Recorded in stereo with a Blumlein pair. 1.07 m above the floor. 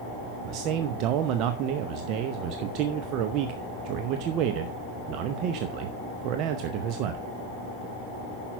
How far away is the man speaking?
About 0.7 m.